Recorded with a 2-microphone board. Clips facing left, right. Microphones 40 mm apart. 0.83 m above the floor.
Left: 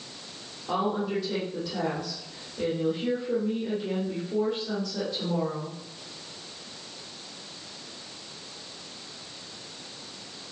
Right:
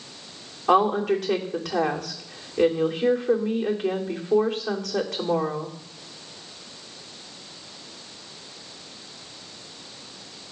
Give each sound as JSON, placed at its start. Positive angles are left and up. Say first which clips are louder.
{"t": 0.7, "sound": "a woman speaking", "louder": "right 8 dB", "side_deg": -65, "distance_m": 2.5}